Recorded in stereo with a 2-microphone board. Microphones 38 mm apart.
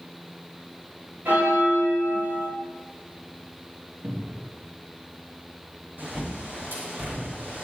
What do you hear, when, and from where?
1.2 s a bell: 50° right (ahead or behind), 5 m
4.0 s a cupboard door: 55° right (ahead or behind), 2 m
6.0 s a bird: 60° right (ahead or behind), 5 m